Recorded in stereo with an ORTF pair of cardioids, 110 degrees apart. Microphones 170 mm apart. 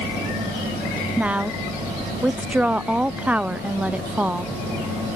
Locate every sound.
1.2 s a woman speaking: 5° right, 0.6 m